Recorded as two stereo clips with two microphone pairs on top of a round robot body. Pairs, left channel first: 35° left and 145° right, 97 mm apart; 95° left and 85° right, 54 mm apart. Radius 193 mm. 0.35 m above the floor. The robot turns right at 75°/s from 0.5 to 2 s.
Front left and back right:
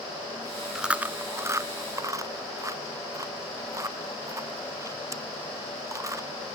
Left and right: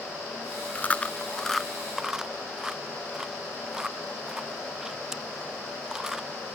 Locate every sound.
0.8 s chewing: 130° left; by 6.3 s 140° right